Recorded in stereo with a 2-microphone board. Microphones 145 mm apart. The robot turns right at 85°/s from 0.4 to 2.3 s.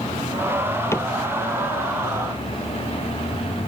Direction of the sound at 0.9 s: 20° left (ahead or behind).